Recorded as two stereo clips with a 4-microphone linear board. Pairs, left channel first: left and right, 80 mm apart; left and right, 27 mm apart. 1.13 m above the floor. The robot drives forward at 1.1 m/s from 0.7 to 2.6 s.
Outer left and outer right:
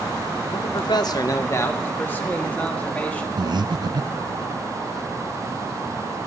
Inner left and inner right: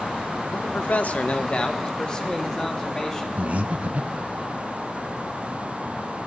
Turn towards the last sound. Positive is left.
turn(degrees=-60)  # may be behind; listen again after turning